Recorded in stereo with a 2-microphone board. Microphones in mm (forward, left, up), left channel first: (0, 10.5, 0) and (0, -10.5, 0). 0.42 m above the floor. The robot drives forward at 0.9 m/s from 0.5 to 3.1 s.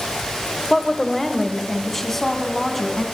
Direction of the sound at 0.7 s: 25° left (ahead or behind).